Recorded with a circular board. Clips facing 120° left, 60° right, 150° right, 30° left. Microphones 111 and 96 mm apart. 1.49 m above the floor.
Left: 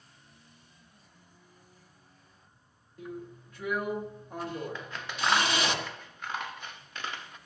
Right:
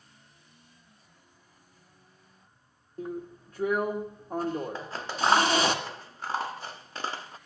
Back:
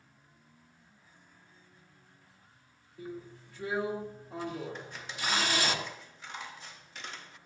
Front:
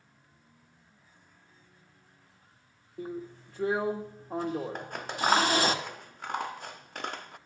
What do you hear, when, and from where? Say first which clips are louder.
3.0 s a drill: right 5 dB, front 5 dB; 10° right, 1.6 m
4.8 s scissors: right 4 dB, front 8 dB; 5° right, 0.5 m